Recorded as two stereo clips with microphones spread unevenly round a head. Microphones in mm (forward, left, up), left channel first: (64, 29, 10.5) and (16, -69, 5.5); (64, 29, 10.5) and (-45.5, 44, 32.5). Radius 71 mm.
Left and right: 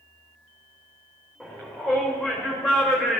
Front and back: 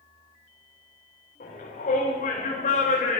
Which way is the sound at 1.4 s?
25° right.